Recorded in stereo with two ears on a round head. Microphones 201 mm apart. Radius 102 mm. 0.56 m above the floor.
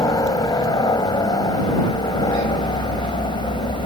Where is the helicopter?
15° left (ahead or behind); by 3.9 s 20° left (ahead or behind).